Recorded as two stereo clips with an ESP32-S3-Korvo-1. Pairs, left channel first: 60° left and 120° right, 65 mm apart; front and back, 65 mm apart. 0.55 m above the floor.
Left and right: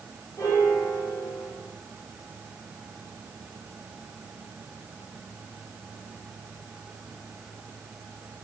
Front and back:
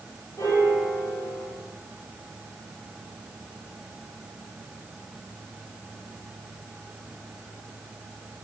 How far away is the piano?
About 3 m.